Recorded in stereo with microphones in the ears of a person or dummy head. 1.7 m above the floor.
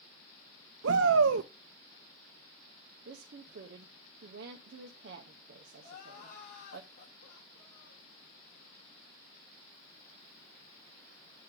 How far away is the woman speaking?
About 0.7 m.